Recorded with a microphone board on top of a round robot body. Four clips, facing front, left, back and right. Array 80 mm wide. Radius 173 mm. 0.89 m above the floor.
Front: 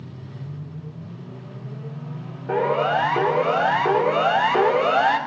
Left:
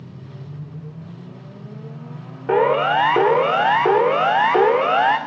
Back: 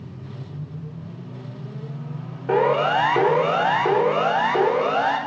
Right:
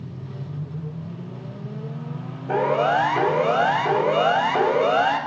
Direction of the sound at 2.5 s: 105° left.